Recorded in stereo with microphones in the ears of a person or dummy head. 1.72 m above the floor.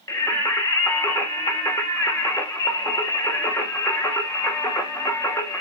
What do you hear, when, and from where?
0.1 s singing: 15° left (ahead or behind), 2 m